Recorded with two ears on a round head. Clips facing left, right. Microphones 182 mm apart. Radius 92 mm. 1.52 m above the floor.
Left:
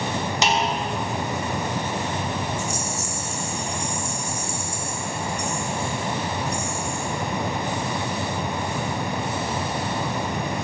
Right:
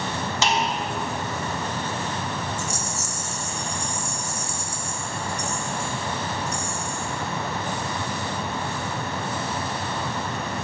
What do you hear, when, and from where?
0.4 s a snare drum: 15° left (ahead or behind), 1.4 m
2.6 s a rattle: 55° right (ahead or behind), 2.5 m